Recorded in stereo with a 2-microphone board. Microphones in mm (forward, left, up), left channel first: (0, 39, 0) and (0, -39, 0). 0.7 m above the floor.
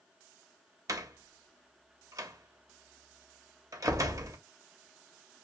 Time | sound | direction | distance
0.9 | a door slam | 45° right (ahead or behind) | 0.7 m